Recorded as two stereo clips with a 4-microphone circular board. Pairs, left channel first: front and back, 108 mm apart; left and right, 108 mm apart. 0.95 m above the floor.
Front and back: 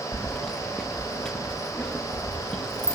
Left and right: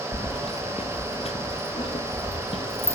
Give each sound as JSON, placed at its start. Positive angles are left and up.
{"t": 0.1, "sound": "keys jangling", "azimuth_deg": 85, "distance_m": 0.5}